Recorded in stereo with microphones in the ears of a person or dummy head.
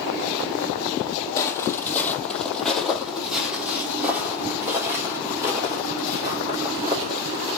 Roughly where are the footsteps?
Centre.